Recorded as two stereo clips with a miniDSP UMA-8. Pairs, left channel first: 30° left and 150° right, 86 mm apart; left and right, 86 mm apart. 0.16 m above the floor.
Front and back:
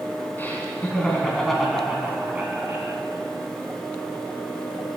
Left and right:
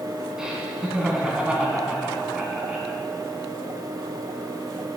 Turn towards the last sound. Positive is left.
turn(degrees=-150)